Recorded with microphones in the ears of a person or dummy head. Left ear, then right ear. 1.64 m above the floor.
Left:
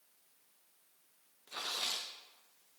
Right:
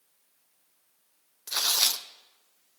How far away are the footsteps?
I don't hear footsteps.